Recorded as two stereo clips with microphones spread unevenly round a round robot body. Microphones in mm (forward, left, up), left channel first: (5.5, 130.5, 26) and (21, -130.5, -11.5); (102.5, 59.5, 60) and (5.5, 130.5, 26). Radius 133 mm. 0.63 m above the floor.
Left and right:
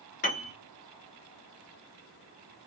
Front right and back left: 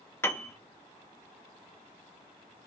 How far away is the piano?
About 1.2 m.